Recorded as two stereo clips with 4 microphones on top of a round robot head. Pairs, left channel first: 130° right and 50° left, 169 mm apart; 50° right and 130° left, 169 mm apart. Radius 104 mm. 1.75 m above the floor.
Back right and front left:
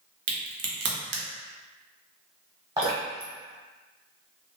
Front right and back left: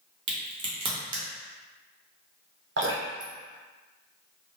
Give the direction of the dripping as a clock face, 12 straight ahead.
8 o'clock.